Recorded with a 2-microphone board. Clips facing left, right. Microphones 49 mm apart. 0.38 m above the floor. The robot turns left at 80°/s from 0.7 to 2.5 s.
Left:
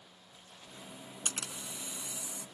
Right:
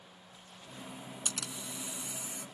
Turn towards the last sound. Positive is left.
turn(degrees=-60)